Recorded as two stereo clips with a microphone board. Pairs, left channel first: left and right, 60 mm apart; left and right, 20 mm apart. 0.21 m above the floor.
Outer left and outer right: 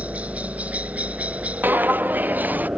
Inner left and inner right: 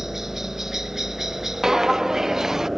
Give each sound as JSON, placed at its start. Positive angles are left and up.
{"t": 0.0, "sound": "a helicopter", "side_deg": -25}
{"t": 1.6, "sound": "footsteps", "side_deg": -30}